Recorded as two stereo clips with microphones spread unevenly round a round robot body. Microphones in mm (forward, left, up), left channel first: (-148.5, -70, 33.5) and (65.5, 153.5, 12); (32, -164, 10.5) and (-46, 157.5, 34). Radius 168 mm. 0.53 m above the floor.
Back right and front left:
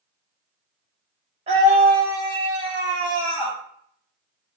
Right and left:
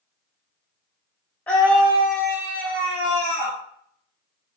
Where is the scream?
Straight ahead, 0.7 m; by 3.6 s 90° left, 1.2 m.